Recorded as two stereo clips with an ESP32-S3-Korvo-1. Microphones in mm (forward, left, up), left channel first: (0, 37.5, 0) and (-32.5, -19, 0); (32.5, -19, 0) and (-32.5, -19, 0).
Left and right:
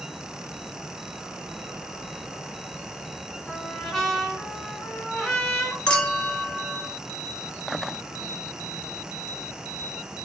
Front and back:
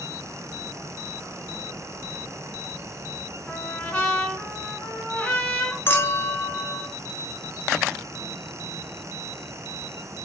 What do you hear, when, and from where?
3.5 s a trumpet: 5° right, 1.3 m
5.9 s a clink: 5° right, 0.9 m